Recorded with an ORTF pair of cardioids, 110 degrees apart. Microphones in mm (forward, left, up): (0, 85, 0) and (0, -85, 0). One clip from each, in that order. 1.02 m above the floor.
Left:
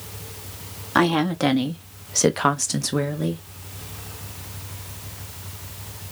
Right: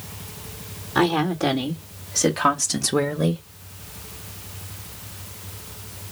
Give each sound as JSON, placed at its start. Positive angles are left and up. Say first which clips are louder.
{"t": 0.9, "sound": "a woman speaking", "louder": "left 1 dB", "azimuth_deg": 65, "distance_m": 2.0}